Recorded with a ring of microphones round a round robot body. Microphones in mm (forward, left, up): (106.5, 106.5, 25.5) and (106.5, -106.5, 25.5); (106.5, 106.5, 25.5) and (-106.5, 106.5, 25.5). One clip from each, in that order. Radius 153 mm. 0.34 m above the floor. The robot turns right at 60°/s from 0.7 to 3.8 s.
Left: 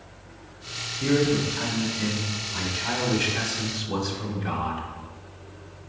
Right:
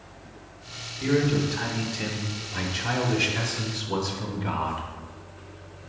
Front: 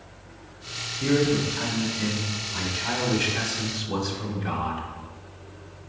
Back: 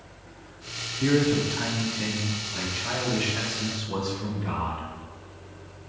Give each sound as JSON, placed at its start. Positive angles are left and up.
{"t": 1.0, "sound": "a man speaking", "azimuth_deg": 155, "distance_m": 0.9}